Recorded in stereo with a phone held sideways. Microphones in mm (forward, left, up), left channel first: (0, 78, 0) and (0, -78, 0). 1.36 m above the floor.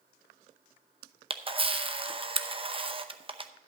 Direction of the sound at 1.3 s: 35° right (ahead or behind).